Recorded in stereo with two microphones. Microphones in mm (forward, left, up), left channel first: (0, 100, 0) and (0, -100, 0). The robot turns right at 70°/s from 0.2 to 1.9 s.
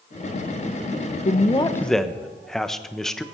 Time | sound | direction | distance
1.2 | a man speaking | 135° left | 0.7 m